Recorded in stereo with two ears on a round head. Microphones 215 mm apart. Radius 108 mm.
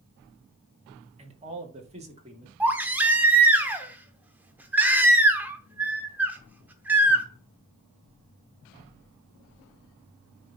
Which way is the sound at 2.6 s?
5° right (ahead or behind).